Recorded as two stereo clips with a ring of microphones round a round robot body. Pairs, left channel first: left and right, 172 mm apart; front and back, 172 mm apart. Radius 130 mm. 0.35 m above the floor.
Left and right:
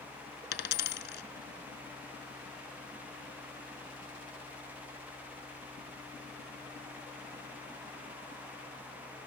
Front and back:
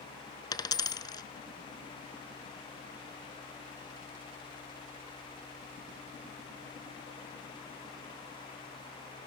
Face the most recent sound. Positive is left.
turn(degrees=70)